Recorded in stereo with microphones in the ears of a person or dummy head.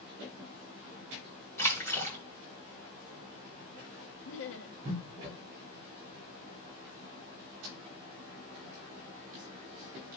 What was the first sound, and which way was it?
A splash, 15° left (ahead or behind).